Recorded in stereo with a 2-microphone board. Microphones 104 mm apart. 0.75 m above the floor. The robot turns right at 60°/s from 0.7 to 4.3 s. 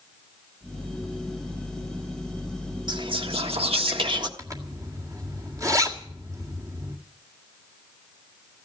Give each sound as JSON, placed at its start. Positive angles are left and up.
{"t": 2.9, "sound": "whispering", "azimuth_deg": -130, "distance_m": 1.3}
{"t": 4.4, "sound": "a zipper", "side_deg": -35, "distance_m": 1.9}